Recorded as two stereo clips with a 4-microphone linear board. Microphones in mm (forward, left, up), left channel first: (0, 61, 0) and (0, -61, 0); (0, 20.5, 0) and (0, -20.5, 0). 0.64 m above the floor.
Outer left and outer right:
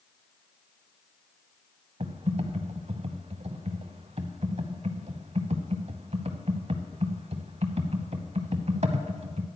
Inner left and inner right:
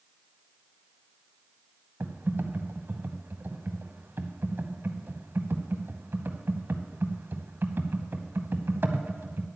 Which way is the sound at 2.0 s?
65° right (ahead or behind).